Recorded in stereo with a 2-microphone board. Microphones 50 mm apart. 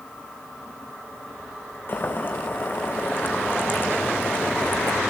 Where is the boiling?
45° left (ahead or behind), 3.5 m.